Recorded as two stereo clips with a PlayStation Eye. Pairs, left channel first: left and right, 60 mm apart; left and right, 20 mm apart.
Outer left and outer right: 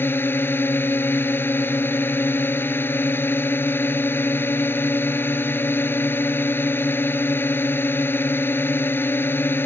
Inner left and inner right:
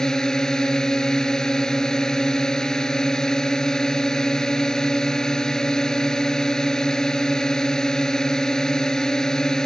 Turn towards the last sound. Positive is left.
turn(degrees=35)  # may be behind; listen again after turning